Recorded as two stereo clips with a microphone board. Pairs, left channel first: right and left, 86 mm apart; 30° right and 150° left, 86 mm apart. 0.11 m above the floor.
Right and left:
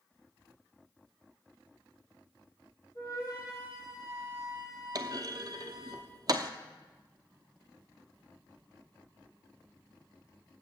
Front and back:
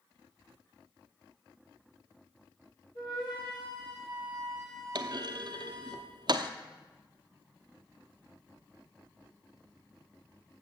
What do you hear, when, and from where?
3.0 s a flute: 45° right, 4 m
5.0 s a clunk: 125° left, 0.7 m